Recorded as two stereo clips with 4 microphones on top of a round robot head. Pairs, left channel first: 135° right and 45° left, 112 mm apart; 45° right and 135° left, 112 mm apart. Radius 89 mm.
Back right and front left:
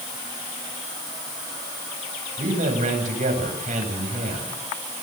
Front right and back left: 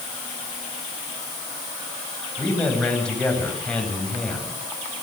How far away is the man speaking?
About 9 m.